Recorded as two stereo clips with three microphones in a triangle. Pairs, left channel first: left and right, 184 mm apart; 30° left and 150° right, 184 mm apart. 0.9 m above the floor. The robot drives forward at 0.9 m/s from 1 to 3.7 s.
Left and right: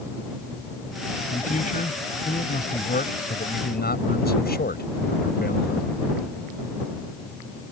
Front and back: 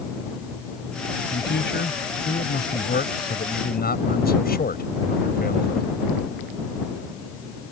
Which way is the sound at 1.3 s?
45° left.